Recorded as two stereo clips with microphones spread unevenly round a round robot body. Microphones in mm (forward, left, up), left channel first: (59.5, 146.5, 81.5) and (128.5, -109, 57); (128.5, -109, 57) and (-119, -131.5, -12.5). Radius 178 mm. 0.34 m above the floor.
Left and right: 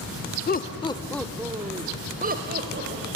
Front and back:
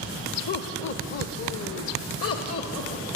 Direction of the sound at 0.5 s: 65° left.